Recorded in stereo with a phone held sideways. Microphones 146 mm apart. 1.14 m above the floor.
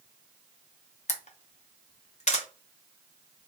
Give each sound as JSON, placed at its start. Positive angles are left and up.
{"t": 1.1, "sound": "a camera shutter", "side_deg": 50, "distance_m": 0.7}